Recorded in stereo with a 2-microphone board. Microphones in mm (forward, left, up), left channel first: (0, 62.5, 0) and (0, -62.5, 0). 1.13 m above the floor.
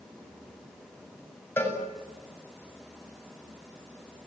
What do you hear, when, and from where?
1.6 s a cowbell: 20° left (ahead or behind), 7.5 m